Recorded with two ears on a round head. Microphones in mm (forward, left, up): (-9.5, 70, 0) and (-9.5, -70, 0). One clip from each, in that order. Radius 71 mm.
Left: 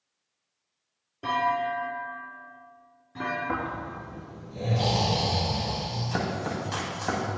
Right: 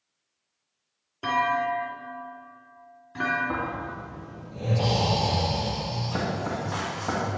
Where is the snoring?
35° left (ahead or behind), 2.5 m.